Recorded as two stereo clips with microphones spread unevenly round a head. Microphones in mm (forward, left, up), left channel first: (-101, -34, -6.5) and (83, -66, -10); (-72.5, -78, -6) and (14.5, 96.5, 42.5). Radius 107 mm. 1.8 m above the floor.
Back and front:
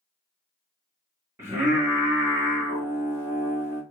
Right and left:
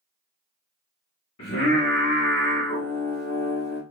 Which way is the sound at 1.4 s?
85° right.